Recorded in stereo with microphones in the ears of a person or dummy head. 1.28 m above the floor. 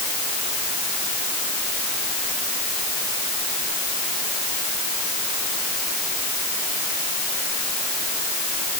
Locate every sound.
Only background noise.